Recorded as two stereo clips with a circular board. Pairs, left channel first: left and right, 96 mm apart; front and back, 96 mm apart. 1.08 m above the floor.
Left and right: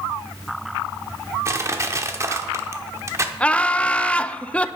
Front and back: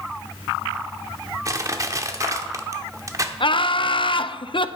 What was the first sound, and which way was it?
Crushing, 135° right.